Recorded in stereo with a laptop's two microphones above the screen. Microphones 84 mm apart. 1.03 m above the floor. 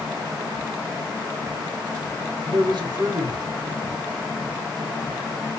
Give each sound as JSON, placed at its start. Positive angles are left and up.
{"t": 2.5, "sound": "a man speaking", "side_deg": -60, "distance_m": 1.1}